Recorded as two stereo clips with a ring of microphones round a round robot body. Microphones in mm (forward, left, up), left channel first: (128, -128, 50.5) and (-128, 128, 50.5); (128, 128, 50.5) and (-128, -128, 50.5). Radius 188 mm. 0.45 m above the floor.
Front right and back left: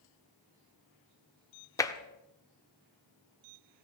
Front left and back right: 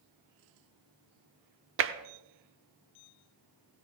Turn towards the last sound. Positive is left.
turn(degrees=-120)